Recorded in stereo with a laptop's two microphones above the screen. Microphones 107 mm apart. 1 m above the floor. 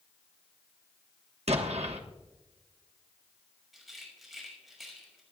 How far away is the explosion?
About 1.3 m.